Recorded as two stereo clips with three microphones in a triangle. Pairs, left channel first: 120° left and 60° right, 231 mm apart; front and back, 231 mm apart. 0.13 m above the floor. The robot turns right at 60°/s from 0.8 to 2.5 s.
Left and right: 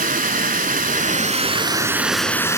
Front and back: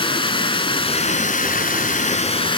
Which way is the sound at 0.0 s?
50° right.